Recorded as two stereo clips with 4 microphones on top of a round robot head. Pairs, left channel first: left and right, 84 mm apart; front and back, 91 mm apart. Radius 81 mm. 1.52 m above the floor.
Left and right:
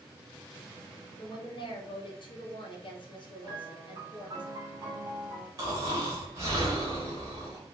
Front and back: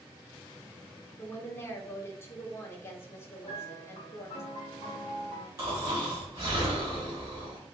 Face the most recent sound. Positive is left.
turn(degrees=-130)